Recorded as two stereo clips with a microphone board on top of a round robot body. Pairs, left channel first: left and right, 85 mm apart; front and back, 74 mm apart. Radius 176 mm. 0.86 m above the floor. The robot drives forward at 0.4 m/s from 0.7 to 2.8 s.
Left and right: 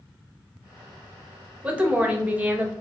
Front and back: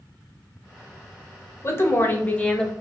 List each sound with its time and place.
1.6 s a woman speaking: 25° right, 1.0 m; by 2.7 s 60° right, 0.8 m